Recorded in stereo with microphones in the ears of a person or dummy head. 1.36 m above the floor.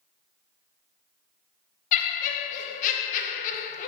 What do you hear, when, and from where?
1.9 s laughter: 50° left (ahead or behind), 0.6 m